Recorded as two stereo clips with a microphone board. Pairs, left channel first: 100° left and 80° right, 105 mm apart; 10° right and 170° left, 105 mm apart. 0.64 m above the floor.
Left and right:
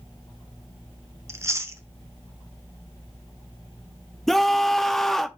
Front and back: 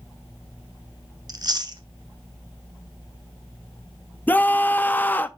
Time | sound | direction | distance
1.3 | chewing | 140° right | 0.8 m
4.3 | a scream | 20° left | 0.5 m